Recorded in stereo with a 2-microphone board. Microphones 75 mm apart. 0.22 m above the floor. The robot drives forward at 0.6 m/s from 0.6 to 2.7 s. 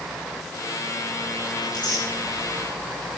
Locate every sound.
1.6 s tearing paper: 80° left, 7.5 m